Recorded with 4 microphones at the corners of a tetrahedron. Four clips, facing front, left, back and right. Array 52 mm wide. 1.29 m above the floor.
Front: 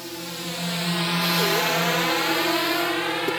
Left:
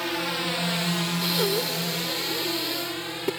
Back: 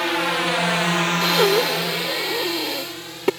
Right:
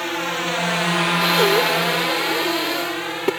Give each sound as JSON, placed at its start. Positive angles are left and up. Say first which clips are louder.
{"t": 0.0, "sound": "a drone", "louder": "right 4 dB, back 13 dB", "azimuth_deg": -165}
{"t": 1.2, "sound": "breathing", "louder": "right 10 dB, back 4 dB", "azimuth_deg": -140}